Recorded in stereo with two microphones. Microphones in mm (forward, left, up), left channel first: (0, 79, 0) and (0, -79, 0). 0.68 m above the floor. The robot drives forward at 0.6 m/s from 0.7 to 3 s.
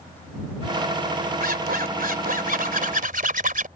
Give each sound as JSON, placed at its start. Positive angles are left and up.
{"t": 1.4, "sound": "a zipper", "side_deg": -70}